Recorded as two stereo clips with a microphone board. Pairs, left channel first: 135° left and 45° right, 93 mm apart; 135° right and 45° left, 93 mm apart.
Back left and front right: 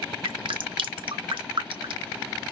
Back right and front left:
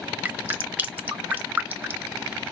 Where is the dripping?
25° right, 1.0 m.